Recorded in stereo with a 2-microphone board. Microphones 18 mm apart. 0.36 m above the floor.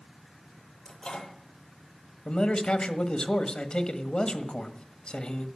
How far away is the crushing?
I don't hear crushing.